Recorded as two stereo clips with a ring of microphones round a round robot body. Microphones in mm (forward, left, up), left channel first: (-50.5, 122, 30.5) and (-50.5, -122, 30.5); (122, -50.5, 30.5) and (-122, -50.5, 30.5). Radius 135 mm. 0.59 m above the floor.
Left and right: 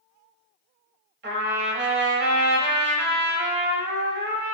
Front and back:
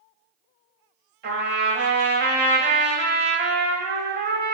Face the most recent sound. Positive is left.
turn(degrees=-135)